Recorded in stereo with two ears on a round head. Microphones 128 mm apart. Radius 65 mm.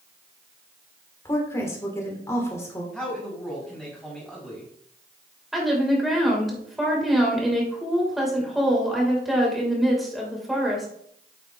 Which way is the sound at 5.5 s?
Centre (ahead or behind).